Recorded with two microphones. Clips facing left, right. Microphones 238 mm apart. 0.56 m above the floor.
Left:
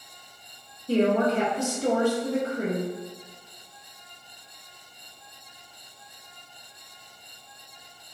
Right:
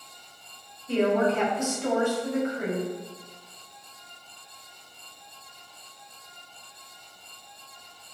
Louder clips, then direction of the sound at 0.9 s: Left 1 dB; 35° left (ahead or behind).